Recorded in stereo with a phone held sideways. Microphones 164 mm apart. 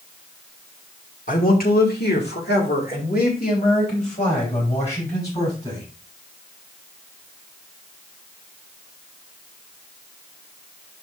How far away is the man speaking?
About 2 m.